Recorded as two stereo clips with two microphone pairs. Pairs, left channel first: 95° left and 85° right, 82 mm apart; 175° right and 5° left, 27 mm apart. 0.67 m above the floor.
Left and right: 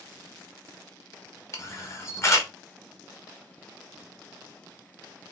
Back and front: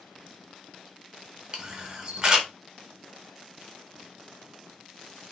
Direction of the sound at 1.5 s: 60° left.